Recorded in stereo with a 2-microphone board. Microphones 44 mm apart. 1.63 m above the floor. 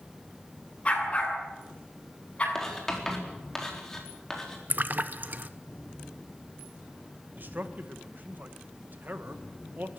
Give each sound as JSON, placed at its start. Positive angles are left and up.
{"t": 0.8, "sound": "a dog barking", "side_deg": 25, "distance_m": 8.0}
{"t": 2.5, "sound": "writing", "side_deg": 10, "distance_m": 4.0}
{"t": 4.7, "sound": "a splash", "side_deg": -45, "distance_m": 0.9}
{"t": 7.4, "sound": "a man speaking", "side_deg": -40, "distance_m": 1.8}